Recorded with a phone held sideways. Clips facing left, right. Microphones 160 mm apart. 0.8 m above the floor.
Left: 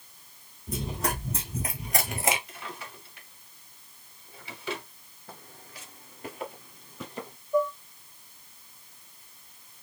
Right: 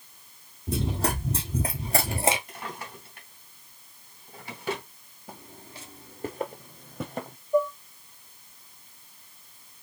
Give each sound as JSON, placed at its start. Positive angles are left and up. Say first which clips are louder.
{"t": 0.7, "sound": "running footsteps", "louder": "right 4 dB", "side_deg": -30, "distance_m": 1.9}
{"t": 2.5, "sound": "a drawer", "louder": "right 3 dB", "side_deg": -50, "distance_m": 2.0}
{"t": 5.3, "sound": "footsteps", "louder": "right 3 dB", "side_deg": -15, "distance_m": 0.8}
{"t": 7.5, "sound": "dishes clattering", "louder": "right 2 dB", "side_deg": -5, "distance_m": 1.2}